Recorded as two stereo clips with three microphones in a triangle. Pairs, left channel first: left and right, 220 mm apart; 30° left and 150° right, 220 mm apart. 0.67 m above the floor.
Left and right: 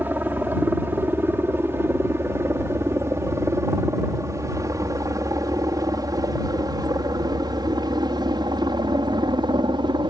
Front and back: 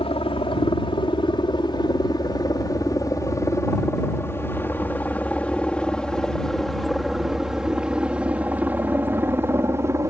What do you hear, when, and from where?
0.0 s a helicopter: 15° right; by 10.1 s 100° right